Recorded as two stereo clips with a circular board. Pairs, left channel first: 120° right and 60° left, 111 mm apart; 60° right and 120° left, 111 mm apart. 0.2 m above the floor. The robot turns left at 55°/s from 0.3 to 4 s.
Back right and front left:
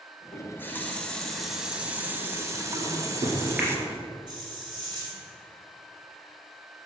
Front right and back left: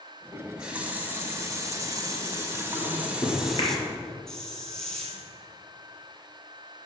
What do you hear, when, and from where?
0.3 s a running tap: 150° right, 0.9 m; by 3.8 s 20° left, 0.9 m
2.8 s a microwave: 30° left, 2.5 m; by 3.7 s 25° right, 2.5 m
4.3 s a hiss: 25° left, 1.3 m